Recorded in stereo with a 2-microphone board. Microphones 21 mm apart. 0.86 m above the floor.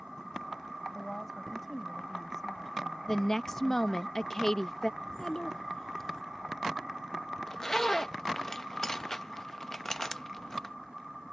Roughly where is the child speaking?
Left.